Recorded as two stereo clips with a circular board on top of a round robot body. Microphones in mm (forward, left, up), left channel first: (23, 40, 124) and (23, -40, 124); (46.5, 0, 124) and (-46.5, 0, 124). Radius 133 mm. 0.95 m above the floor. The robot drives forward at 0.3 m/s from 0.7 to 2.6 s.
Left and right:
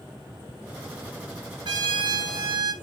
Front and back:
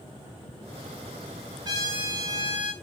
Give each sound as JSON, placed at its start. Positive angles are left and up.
{"t": 1.6, "sound": "a trumpet", "azimuth_deg": -130, "distance_m": 1.7}